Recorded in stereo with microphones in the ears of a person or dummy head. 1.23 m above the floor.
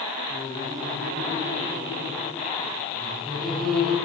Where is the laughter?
25° right (ahead or behind), 9 m; by 4.0 s 5° left (ahead or behind), 7.5 m.